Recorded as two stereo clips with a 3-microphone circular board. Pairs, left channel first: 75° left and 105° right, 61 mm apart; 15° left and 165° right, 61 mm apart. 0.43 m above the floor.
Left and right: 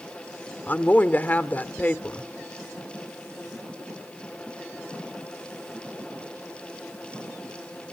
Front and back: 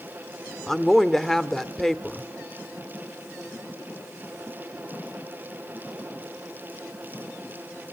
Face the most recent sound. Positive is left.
turn(degrees=95)